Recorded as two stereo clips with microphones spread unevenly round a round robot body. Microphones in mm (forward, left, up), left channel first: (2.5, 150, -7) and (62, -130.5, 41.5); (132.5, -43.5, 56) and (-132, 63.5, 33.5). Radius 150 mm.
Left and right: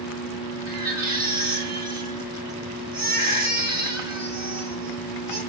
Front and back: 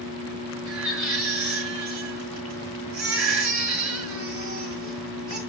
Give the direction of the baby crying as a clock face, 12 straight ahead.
5 o'clock.